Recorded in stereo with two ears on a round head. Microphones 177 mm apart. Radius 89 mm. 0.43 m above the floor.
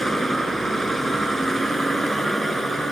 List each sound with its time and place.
0.0 s a vehicle: centre (ahead or behind)